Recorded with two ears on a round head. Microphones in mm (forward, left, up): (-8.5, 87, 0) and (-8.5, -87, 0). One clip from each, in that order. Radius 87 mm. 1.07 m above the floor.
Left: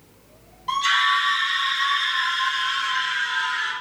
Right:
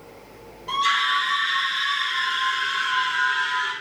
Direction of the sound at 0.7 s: 5° right (ahead or behind).